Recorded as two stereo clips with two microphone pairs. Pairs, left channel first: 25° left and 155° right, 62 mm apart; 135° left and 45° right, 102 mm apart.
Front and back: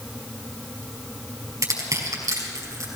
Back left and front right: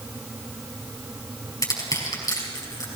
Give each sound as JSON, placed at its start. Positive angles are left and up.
{"t": 1.6, "sound": "crushing", "azimuth_deg": -175, "distance_m": 4.5}